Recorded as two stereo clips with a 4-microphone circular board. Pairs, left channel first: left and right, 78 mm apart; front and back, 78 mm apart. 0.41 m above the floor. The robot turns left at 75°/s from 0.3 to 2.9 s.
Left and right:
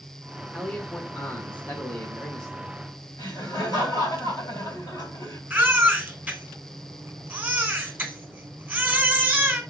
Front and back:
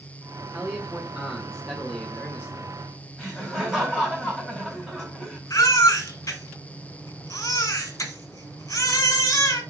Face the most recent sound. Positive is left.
turn(degrees=-25)